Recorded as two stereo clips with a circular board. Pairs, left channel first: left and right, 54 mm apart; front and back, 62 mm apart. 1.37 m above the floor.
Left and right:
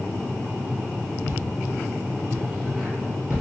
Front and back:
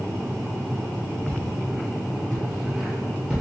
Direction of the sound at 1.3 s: 55° left.